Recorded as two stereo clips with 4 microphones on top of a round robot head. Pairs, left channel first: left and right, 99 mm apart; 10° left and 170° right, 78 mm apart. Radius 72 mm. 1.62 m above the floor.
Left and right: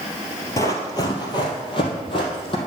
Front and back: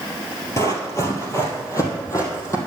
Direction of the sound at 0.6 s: 45° left.